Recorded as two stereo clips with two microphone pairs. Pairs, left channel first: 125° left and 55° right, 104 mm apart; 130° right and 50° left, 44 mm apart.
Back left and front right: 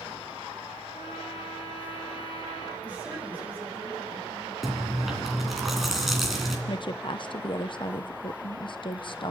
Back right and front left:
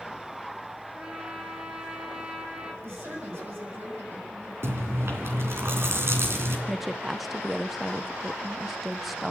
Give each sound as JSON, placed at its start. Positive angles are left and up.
{"t": 0.9, "sound": "a trumpet", "azimuth_deg": 115, "distance_m": 3.0}
{"t": 2.8, "sound": "a woman speaking", "azimuth_deg": 25, "distance_m": 9.0}
{"t": 4.6, "sound": "chewing", "azimuth_deg": 35, "distance_m": 3.0}
{"t": 6.7, "sound": "a woman speaking", "azimuth_deg": 140, "distance_m": 0.7}